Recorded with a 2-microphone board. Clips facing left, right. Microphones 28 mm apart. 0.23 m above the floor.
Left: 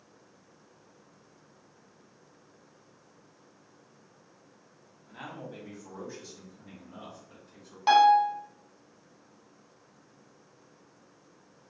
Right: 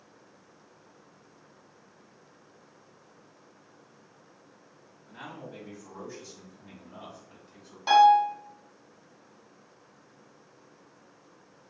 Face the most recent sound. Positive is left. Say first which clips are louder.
# right 1 dB
turn(degrees=25)  # may be behind; listen again after turning